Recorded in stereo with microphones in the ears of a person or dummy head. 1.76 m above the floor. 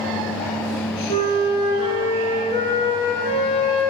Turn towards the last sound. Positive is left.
turn(degrees=25)  # may be behind; listen again after turning